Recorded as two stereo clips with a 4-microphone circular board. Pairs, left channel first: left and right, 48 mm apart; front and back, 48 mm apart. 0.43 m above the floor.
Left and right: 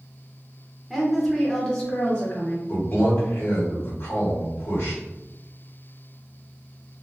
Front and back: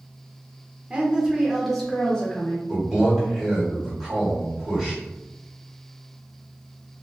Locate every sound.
0.9 s a woman speaking: 165° right, 0.8 m; by 2.6 s 50° left, 0.9 m
2.7 s a man speaking: 110° left, 1.3 m